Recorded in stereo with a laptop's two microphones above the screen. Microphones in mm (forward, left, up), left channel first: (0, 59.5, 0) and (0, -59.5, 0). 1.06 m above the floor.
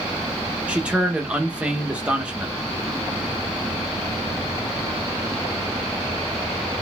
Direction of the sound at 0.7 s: 10° right (ahead or behind).